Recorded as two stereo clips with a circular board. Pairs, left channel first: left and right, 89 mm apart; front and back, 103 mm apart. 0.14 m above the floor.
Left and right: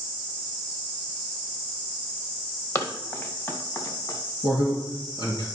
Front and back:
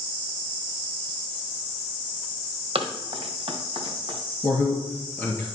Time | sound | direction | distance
2.8 | running footsteps | 150° left | 1.8 m
4.4 | a man speaking | 70° left | 2.5 m